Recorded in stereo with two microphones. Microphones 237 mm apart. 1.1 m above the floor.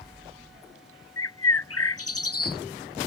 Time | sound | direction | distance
1.2 | a bird | 75° left (ahead or behind) | ?